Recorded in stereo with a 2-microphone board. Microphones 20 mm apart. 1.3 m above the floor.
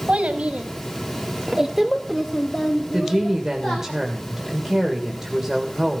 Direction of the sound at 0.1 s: 75° right (ahead or behind).